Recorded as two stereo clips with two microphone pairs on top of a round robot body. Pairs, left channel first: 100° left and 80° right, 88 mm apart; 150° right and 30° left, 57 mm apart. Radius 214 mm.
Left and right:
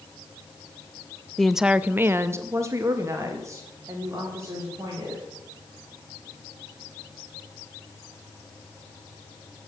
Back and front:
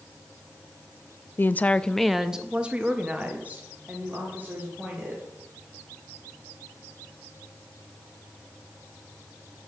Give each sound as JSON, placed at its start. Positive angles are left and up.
{"t": 1.4, "sound": "a woman speaking", "azimuth_deg": -170, "distance_m": 0.6}